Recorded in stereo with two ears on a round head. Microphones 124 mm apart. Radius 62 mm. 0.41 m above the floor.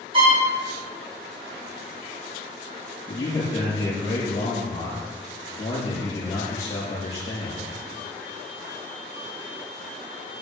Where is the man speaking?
30° left (ahead or behind), 6 m.